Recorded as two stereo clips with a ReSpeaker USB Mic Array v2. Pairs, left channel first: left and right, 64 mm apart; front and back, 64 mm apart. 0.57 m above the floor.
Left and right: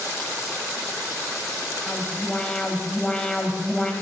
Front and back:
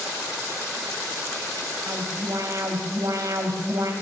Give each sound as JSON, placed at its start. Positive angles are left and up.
{"t": 1.9, "sound": "an alarm", "azimuth_deg": 165, "distance_m": 2.5}